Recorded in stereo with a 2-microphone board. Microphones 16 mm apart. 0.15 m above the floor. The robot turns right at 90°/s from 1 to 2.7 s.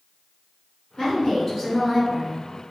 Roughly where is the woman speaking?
Left.